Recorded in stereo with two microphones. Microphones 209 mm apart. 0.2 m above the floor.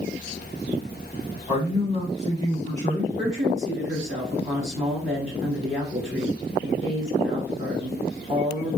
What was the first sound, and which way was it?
A man speaking, 20° right (ahead or behind).